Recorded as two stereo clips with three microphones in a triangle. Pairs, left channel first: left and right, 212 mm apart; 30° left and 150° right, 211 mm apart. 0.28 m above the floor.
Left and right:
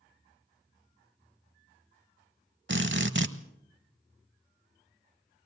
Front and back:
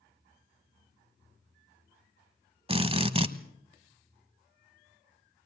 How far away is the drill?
About 1.1 m.